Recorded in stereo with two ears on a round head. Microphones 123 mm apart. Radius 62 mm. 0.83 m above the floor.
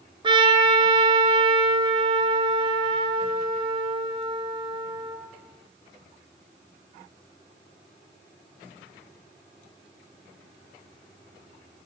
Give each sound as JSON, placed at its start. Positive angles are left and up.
{"t": 0.2, "sound": "a trumpet", "side_deg": -40, "distance_m": 4.0}